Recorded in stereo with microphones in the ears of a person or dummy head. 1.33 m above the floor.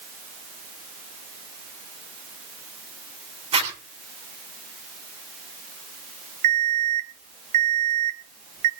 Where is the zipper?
35° right (ahead or behind), 9.5 m.